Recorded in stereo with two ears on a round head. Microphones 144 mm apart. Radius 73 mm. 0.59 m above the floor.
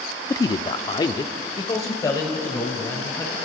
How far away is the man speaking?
About 0.7 m.